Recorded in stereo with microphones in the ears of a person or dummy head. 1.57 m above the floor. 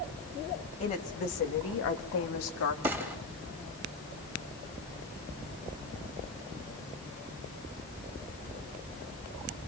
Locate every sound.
0.8 s a woman speaking: 30° left (ahead or behind), 1.8 m; by 2.7 s 80° left, 2.5 m
2.8 s a gunshot: 10° right (ahead or behind), 2.5 m